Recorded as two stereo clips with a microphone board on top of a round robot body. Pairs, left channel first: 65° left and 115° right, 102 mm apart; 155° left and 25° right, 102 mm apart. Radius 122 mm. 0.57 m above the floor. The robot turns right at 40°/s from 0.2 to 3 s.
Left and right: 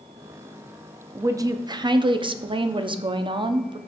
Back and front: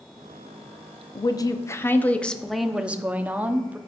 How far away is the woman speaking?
About 1.0 m.